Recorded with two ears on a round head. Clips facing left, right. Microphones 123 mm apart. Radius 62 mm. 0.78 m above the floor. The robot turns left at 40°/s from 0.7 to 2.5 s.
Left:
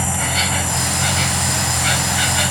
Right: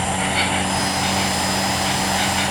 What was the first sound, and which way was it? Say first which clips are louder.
An insect: right 2 dB; 125° left.